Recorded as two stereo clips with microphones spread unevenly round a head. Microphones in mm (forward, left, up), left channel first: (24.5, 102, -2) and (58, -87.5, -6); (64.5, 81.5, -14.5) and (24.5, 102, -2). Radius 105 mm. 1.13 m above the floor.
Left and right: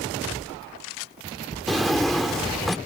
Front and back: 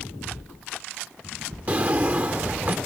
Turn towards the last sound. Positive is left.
turn(degrees=-170)